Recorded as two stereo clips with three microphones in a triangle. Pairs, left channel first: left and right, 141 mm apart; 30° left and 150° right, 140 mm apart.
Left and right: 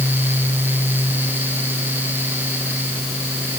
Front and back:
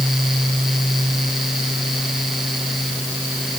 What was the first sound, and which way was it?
Only background noise.